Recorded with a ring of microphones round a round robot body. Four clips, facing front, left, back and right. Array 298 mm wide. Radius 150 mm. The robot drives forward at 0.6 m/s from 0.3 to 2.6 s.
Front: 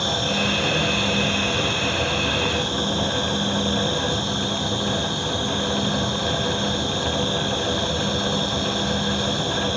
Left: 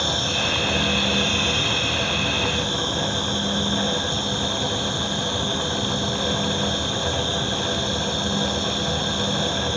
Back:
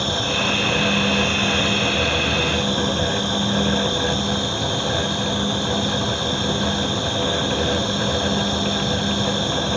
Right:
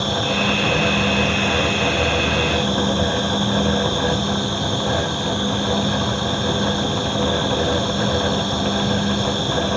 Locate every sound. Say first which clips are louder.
0.0 s an insect: right 5 dB, back 1 dB; 90° left, 1.6 m; by 9.8 s 135° left, 2 m